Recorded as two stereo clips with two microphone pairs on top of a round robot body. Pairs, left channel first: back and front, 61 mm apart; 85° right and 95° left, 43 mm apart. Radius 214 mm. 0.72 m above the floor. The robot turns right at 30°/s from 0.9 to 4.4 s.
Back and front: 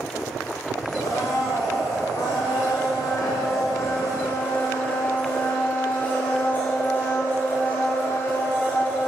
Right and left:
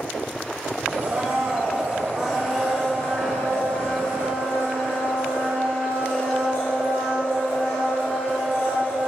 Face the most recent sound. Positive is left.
turn(degrees=-120)